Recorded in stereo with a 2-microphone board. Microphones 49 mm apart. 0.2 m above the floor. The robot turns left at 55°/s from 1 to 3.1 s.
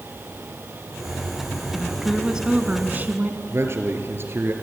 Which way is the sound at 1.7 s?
20° left.